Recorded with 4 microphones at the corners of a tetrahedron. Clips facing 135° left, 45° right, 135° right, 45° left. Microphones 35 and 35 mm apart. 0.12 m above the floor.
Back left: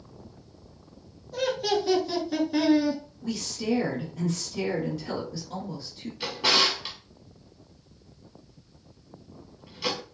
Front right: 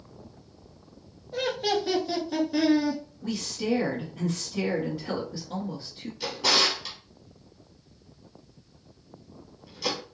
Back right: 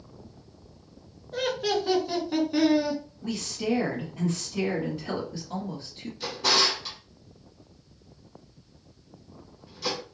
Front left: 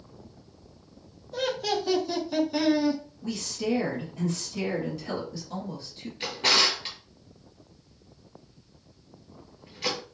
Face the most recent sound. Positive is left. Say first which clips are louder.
# back left 1 dB, front left 1 dB
turn(degrees=75)